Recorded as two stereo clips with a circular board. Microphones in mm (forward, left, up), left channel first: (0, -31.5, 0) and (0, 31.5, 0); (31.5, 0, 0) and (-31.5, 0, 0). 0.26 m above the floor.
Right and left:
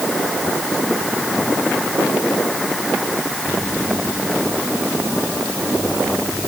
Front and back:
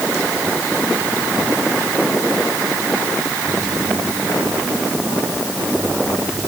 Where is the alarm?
I don't hear an alarm.